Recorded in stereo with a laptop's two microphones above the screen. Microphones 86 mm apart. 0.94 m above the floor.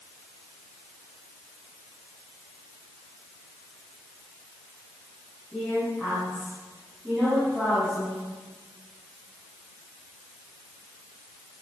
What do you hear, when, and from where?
5.5 s a woman speaking: 10° right (ahead or behind), 8 m